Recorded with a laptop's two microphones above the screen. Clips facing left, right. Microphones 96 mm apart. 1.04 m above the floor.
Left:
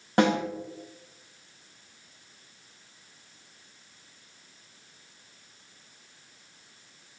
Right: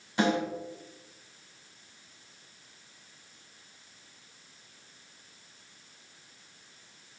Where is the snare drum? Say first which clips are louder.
Left 4 dB; 55° left (ahead or behind), 5 m.